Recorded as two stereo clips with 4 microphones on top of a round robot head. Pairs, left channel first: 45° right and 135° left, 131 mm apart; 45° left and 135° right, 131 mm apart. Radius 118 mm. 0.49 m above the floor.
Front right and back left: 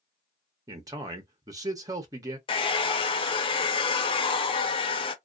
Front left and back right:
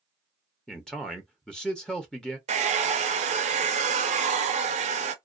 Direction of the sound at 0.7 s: 125° left.